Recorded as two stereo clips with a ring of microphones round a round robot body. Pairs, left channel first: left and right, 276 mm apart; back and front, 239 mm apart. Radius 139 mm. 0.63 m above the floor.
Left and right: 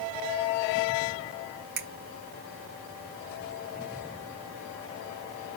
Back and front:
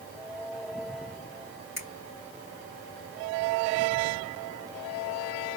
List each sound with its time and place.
1.8 s a finger snap: 80° right, 2 m